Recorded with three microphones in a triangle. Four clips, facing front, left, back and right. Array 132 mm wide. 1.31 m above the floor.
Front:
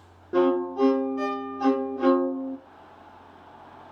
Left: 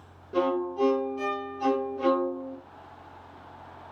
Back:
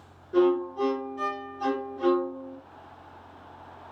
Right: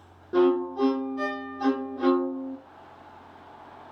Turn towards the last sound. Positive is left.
turn(degrees=-25)